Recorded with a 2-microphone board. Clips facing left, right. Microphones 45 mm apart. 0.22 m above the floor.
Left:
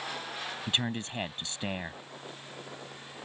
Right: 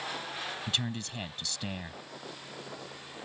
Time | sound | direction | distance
0.7 | a man speaking | 30° left (ahead or behind) | ?